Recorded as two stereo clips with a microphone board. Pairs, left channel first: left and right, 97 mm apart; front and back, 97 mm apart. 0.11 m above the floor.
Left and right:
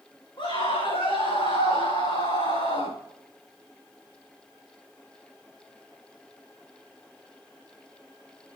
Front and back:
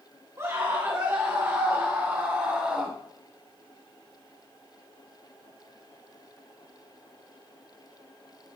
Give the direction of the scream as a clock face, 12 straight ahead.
8 o'clock.